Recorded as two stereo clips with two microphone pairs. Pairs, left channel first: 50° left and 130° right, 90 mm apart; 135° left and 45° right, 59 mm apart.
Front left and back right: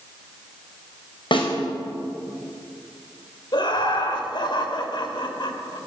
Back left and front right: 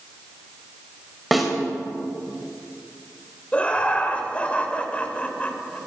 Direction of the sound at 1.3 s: 45° left.